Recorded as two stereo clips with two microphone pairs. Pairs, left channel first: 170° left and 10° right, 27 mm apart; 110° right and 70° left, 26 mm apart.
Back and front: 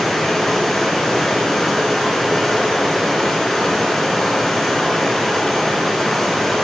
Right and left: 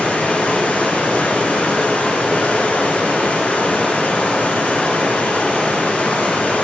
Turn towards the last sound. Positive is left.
turn(degrees=-110)